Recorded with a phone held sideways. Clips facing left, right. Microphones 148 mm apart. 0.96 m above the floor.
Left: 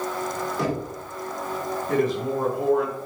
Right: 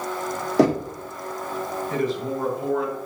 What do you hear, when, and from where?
0.6 s knocking: 85° right, 2.0 m
1.9 s a man speaking: 70° left (ahead or behind), 3.5 m